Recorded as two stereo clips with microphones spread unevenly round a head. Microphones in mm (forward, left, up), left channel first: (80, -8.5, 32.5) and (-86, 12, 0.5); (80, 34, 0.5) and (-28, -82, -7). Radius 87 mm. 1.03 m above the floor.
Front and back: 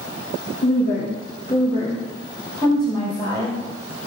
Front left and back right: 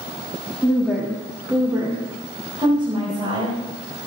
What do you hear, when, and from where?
0.6 s a woman speaking: 40° right, 2 m; by 3.6 s 80° right, 5 m